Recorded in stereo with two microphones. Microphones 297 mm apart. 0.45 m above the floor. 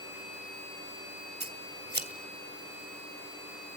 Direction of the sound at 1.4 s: 35° right (ahead or behind).